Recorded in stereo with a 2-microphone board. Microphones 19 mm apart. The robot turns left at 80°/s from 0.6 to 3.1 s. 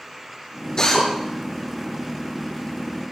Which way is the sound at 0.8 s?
40° left (ahead or behind).